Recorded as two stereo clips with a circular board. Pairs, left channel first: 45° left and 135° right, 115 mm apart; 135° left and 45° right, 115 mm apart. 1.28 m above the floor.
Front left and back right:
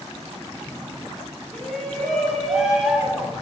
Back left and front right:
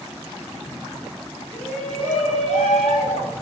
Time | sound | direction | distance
1.5 | a shout | 125° left | 6.5 m